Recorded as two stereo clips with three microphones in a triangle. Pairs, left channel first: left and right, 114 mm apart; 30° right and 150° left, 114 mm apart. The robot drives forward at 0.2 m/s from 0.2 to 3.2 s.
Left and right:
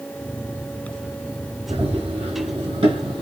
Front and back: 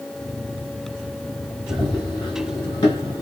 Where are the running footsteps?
75° right, 3 m; by 3.2 s 80° right, 2 m.